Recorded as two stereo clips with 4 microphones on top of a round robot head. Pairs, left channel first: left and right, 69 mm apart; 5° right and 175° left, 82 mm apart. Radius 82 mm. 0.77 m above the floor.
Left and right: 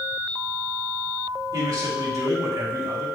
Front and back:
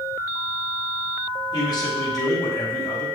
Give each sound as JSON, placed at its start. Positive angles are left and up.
{"t": 1.5, "sound": "a man speaking", "azimuth_deg": -50, "distance_m": 3.0}